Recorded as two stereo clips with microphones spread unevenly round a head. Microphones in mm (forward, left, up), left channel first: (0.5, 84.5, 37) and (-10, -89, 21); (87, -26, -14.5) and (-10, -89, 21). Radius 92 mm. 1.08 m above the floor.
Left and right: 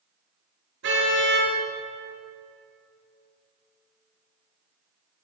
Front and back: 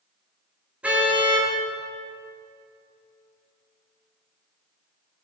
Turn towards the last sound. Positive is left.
turn(degrees=-70)